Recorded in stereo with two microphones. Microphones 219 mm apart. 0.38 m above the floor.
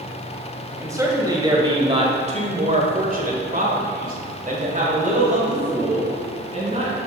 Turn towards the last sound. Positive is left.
turn(degrees=-30)  # may be behind; listen again after turning